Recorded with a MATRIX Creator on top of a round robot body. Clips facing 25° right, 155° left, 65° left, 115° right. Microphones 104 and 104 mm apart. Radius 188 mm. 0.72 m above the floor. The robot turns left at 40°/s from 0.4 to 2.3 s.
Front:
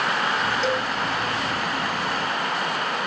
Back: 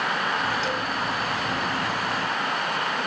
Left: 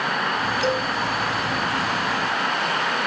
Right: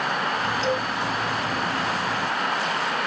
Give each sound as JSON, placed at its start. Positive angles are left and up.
{"t": 0.6, "sound": "a cowbell", "azimuth_deg": 25, "distance_m": 1.9}